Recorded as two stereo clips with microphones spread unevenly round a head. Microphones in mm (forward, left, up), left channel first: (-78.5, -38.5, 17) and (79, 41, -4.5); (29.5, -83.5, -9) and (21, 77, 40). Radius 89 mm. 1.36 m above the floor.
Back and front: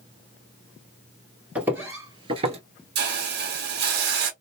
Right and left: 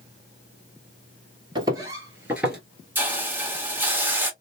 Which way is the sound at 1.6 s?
115° left.